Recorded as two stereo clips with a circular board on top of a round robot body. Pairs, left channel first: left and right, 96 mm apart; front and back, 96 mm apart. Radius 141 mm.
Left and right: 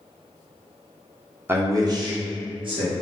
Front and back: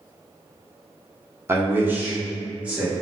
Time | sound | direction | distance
1.5 | a man speaking | 135° right | 0.8 m